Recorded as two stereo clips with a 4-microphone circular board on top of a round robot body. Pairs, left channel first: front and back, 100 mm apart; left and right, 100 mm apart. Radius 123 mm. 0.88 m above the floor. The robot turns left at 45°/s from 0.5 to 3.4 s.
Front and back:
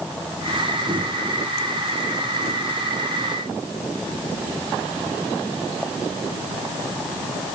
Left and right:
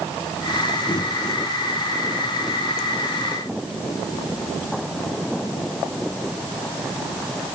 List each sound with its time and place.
Only background noise.